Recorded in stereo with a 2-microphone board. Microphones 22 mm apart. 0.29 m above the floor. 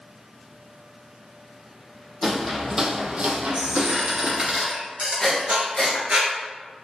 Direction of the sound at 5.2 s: 25° left (ahead or behind).